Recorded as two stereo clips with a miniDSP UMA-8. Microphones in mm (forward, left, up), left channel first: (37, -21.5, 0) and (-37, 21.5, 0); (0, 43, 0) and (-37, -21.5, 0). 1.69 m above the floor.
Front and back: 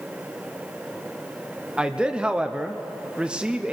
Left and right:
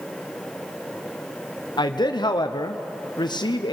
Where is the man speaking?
70° left, 0.8 m.